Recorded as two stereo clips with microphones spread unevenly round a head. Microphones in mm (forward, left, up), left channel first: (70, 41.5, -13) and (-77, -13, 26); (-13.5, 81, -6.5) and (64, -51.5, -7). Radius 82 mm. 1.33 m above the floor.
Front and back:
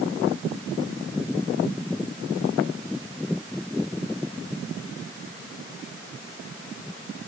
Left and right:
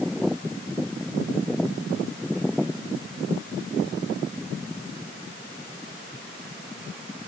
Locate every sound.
Only background noise.